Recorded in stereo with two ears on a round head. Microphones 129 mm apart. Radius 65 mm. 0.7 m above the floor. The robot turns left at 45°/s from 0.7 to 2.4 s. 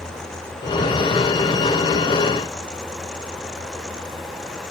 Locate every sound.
Only background noise.